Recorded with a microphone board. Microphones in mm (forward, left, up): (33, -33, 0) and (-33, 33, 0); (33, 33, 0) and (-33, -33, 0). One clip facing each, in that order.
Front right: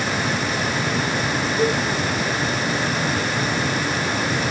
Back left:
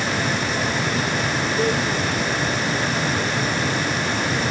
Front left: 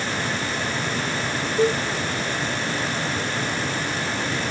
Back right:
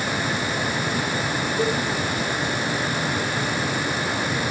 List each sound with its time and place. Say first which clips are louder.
1.6 s a cowbell: front right 1 dB, front left 4 dB; 60° left, 5.5 m